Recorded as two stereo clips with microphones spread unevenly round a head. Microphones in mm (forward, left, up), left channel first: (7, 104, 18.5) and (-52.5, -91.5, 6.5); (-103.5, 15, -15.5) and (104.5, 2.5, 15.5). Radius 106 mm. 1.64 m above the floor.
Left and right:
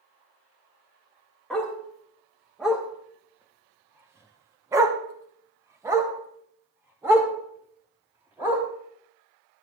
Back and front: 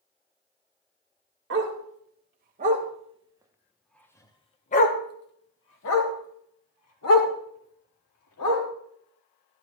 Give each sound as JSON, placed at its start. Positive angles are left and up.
{"t": 1.5, "sound": "a dog barking", "azimuth_deg": -15, "distance_m": 2.0}